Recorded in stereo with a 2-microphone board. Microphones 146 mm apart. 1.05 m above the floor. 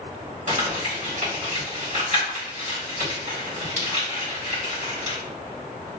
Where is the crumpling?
55° right (ahead or behind), 1.6 m.